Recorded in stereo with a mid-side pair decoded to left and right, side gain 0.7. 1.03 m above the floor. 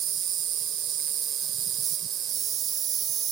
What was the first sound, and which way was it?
An insect, 45° right.